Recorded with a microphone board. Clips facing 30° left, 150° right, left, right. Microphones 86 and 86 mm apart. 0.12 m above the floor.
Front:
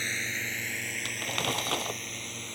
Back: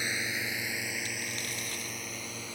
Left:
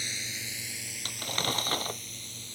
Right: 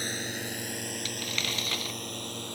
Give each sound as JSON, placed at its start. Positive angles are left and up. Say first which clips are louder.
{"t": 0.0, "sound": "a drone", "louder": "back 1 dB, right 6 dB", "azimuth_deg": -75}
{"t": 1.1, "sound": "crumpling", "louder": "front 6 dB, left 1 dB", "azimuth_deg": 40}